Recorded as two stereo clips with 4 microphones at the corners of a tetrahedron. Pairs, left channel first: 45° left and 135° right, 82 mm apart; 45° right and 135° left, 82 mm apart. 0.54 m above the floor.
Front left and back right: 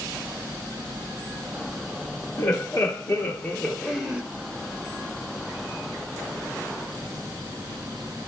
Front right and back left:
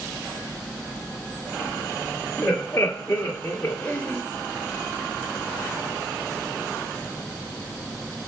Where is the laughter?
25° left, 1.0 m; by 4.2 s 90° right, 0.7 m.